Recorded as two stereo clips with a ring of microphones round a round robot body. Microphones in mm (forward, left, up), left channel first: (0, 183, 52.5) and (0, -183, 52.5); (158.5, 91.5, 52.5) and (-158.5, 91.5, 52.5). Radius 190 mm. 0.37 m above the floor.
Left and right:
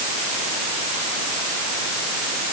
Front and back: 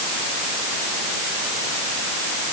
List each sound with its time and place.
Only background noise.